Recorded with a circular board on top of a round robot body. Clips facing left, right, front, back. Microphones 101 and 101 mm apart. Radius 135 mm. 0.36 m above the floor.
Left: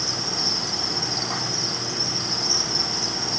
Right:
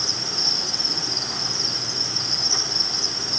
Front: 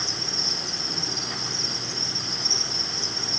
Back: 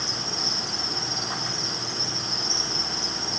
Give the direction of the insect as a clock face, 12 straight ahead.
2 o'clock.